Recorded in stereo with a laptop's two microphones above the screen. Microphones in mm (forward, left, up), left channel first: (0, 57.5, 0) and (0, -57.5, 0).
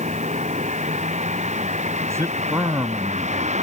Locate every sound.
0.0 s a vehicle: 85° right
2.1 s a man speaking: 25° right (ahead or behind)